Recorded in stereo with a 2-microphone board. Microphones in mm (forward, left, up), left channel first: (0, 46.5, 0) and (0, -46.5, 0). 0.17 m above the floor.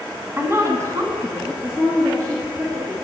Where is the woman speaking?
20° right (ahead or behind), 1.1 m; by 3.0 s 35° right (ahead or behind), 3 m.